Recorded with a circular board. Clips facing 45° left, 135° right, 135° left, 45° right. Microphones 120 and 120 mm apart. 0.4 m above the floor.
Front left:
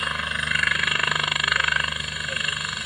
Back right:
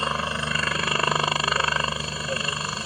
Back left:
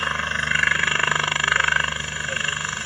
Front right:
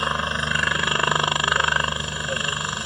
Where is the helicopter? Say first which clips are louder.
Back right 3 dB, front right 2 dB; 100° right.